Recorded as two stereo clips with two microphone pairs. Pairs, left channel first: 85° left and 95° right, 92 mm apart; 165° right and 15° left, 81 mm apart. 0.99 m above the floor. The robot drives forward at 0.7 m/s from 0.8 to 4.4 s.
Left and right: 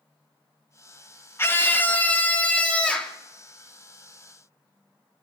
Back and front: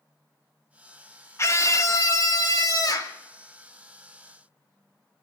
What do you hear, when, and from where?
1.4 s a scream: 145° left, 1.4 m; by 3.2 s 165° left, 2.5 m